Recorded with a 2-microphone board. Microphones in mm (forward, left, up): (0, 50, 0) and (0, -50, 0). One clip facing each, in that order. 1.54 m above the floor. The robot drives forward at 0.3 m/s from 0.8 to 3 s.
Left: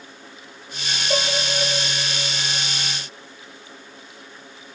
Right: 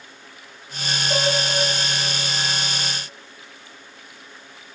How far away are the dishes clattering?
About 2.5 m.